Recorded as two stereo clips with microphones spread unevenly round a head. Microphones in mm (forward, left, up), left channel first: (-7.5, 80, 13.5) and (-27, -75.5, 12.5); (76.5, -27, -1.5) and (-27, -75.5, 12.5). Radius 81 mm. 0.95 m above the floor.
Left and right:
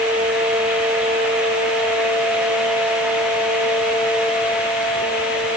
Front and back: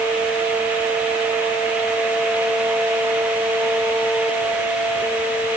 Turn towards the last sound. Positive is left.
No sound to turn to.